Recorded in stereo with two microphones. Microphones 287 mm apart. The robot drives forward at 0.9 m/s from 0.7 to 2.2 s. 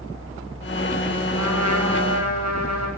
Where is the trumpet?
80° right, 7.5 m; by 2.9 s 75° right (ahead or behind), 8 m.